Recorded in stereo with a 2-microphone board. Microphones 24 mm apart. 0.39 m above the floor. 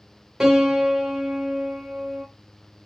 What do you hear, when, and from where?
0.4 s a piano: 25° right (ahead or behind), 0.9 m